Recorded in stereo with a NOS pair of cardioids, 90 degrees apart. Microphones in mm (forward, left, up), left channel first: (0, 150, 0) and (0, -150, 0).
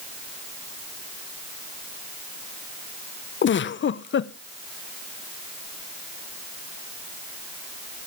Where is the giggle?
40° left, 0.8 m.